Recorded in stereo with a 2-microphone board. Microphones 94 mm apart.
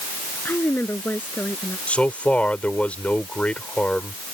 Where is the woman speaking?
20° left (ahead or behind).